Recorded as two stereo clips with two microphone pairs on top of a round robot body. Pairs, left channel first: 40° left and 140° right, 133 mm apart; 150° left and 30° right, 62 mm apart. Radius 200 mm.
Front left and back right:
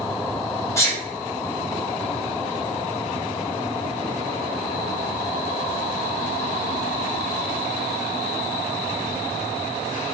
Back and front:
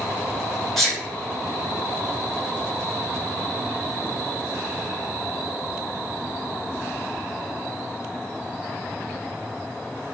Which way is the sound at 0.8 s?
70° left.